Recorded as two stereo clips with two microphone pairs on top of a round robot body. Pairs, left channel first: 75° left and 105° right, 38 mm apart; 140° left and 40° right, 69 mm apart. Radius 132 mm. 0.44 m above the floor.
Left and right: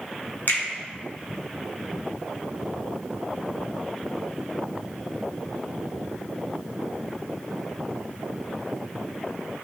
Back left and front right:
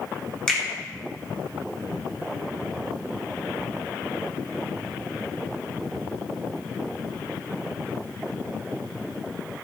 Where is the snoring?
No snoring in this recording.